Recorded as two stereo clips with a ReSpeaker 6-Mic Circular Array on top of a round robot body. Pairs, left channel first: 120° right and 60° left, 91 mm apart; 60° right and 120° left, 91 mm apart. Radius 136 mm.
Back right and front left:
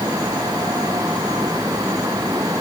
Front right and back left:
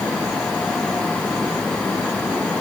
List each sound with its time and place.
Only background noise.